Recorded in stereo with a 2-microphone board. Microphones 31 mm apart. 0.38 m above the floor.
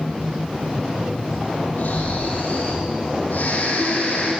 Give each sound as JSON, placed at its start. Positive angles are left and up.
{"t": 1.8, "sound": "snoring", "side_deg": 75, "distance_m": 9.0}